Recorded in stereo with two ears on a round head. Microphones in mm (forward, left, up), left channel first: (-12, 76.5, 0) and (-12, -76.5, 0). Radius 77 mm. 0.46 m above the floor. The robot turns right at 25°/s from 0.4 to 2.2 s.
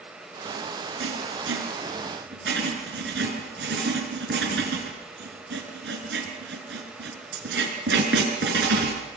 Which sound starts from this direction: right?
Writing, at 1.0 s.